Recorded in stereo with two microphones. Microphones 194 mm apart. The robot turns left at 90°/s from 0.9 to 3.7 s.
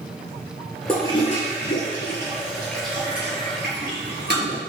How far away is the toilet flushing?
About 1.5 m.